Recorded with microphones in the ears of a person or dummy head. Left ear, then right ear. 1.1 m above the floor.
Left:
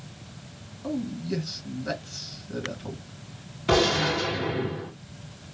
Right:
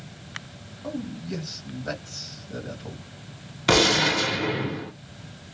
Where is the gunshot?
55° right (ahead or behind), 1.1 m.